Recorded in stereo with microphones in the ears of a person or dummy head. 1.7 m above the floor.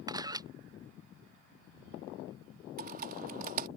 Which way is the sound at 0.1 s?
20° right (ahead or behind).